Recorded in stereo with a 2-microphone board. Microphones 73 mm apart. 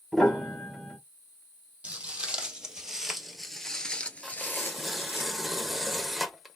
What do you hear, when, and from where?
0.1 s a piano: 5° left (ahead or behind), 2 m
1.8 s footsteps: 20° right (ahead or behind), 1.7 m; by 5.2 s 35° left (ahead or behind), 1.1 m
4.2 s tearing paper: 5° right (ahead or behind), 0.9 m